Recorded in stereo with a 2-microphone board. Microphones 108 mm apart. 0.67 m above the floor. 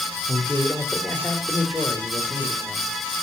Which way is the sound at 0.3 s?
25° left (ahead or behind).